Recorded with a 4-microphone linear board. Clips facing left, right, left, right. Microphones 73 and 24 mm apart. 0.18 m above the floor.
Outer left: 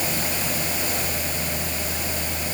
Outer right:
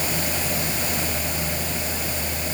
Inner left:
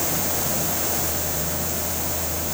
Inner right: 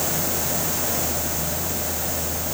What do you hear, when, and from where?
Only background noise.